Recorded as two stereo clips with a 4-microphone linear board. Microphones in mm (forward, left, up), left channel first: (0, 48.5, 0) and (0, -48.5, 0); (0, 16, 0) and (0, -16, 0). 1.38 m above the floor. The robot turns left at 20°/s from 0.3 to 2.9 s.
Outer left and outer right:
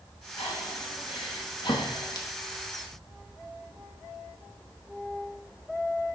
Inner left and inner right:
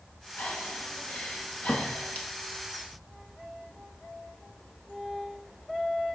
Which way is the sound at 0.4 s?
75° left (ahead or behind).